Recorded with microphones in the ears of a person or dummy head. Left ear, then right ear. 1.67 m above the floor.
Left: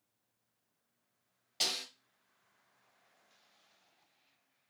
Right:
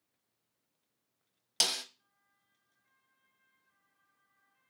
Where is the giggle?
No giggle in this recording.